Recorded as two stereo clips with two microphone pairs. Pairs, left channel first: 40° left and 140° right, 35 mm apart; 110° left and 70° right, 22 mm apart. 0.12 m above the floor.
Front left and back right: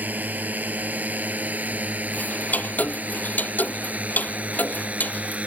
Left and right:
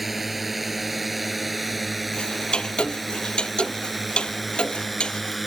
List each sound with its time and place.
0.0 s a drone: 150° right; by 5.5 s 160° right
2.1 s ticking: 75° left